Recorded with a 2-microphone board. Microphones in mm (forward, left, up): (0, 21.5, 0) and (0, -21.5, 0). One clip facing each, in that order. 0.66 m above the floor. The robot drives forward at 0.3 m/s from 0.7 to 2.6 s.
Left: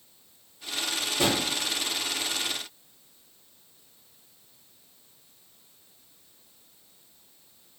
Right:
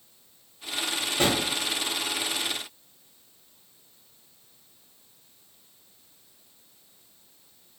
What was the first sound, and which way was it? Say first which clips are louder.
A drawer: right 1 dB; 65° right (ahead or behind).